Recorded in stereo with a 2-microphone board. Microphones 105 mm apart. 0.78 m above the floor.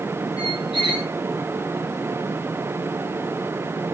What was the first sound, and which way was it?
A squeak, 55° right (ahead or behind).